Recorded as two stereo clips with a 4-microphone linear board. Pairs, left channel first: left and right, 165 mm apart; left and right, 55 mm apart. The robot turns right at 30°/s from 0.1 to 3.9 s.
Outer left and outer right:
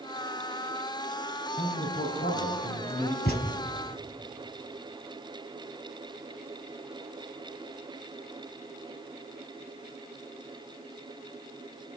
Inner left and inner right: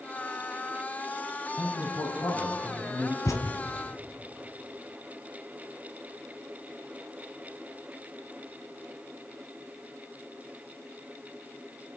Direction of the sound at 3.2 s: 75° left (ahead or behind).